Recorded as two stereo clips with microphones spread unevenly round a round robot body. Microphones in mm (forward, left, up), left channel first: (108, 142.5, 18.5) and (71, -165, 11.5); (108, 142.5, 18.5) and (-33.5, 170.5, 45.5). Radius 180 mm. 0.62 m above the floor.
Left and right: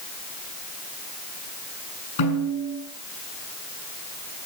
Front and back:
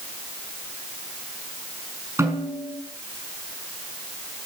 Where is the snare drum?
100° left, 6.5 m.